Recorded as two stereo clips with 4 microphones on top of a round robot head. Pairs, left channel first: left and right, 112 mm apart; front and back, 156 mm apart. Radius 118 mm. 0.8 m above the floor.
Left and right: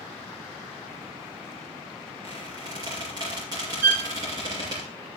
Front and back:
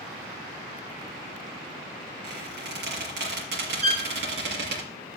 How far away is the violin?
About 1.6 m.